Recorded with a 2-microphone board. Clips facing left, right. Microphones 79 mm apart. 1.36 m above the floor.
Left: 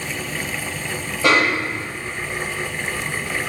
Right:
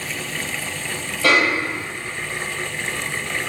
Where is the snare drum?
15° left (ahead or behind), 1.5 m.